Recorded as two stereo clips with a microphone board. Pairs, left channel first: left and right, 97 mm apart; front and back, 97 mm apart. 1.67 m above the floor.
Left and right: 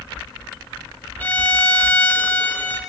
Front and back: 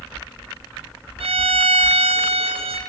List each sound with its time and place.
1.2 s a violin: 160° left, 0.6 m